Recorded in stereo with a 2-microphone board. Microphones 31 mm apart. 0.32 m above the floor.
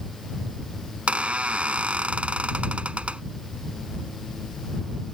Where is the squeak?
45° right (ahead or behind).